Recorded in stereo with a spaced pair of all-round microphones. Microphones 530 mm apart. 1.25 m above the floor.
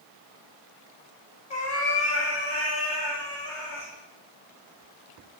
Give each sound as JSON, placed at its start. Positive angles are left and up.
{"t": 1.5, "sound": "a cat meowing", "side_deg": 55, "distance_m": 0.7}